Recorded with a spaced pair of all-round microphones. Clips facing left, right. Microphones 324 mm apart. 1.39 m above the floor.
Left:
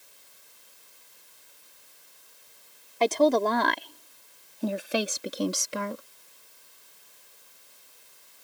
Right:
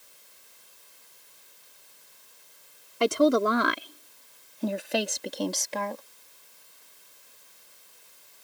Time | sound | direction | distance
3.0 | a woman speaking | 15° right (ahead or behind) | ?